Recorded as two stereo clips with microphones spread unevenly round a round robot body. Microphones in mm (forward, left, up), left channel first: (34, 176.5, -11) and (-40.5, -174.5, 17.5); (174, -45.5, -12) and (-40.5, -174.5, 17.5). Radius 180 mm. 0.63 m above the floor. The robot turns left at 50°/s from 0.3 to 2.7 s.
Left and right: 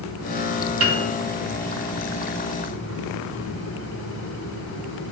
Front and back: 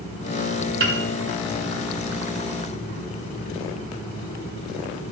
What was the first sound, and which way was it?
A piano, 115° right.